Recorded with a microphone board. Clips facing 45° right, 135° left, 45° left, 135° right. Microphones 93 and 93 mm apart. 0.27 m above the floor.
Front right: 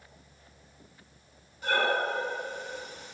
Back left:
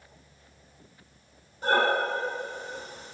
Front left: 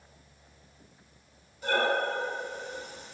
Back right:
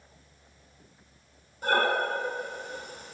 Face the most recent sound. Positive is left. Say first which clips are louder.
# back left 3 dB, back right 2 dB
turn(degrees=-175)